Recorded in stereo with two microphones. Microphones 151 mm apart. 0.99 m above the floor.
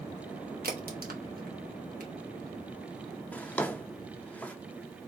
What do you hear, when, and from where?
0.6 s a crack: 75° right (ahead or behind), 1.0 m
3.3 s a drawer: 10° left (ahead or behind), 0.5 m